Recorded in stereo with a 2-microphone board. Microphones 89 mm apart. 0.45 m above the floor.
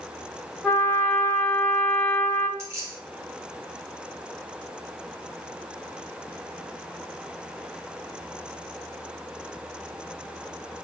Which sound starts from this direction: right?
Keys jangling, at 2.6 s.